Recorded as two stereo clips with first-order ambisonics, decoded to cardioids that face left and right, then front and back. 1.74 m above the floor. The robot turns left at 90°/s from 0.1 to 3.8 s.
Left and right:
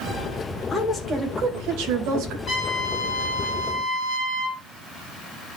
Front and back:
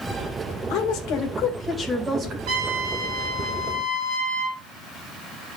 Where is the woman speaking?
15° left, 2 m; by 2.4 s 135° right, 2 m.